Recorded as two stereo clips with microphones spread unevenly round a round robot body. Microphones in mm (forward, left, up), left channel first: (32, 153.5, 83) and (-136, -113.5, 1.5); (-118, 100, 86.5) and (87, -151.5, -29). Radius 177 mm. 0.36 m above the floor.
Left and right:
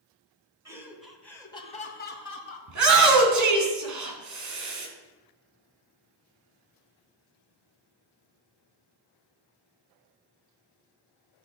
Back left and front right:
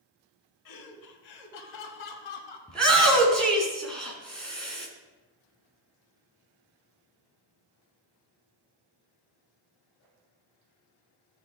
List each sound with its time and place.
0.7 s laughter: 165° left, 2.5 m; by 2.6 s 105° left, 2 m
2.7 s a shout: 135° right, 3.5 m